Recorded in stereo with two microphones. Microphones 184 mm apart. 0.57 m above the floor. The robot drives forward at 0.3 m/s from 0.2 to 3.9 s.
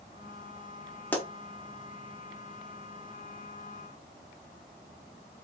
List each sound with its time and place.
1.1 s a pop: 10° left (ahead or behind), 0.7 m